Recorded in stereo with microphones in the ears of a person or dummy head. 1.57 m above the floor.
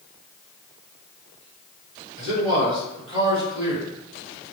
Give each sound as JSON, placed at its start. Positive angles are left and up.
{"t": 2.2, "sound": "a man speaking", "side_deg": -30, "distance_m": 1.9}